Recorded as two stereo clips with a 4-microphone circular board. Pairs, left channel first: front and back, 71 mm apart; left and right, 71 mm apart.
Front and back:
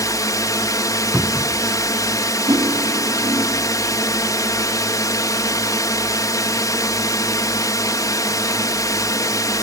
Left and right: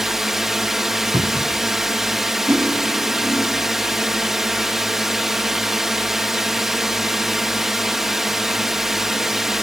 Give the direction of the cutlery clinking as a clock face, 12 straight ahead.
5 o'clock.